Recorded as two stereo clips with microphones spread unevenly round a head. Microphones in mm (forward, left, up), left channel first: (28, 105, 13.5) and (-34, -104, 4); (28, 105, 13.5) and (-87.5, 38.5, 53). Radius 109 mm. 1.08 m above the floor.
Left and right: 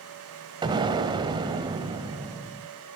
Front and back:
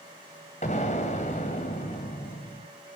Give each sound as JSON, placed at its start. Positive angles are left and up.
{"t": 0.6, "sound": "an explosion", "azimuth_deg": -35, "distance_m": 1.5}